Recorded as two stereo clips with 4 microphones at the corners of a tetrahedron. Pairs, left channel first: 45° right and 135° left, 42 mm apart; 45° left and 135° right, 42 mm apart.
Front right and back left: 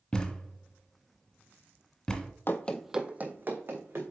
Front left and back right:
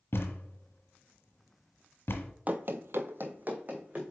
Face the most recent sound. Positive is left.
turn(degrees=170)